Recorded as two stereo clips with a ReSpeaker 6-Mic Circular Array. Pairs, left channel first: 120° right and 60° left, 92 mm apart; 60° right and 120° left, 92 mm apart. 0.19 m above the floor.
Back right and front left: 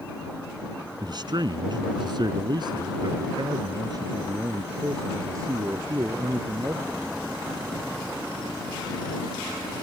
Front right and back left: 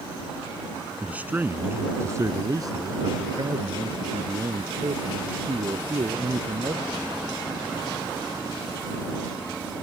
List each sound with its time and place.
1.0 s a man speaking: 50° left; by 7.1 s 115° left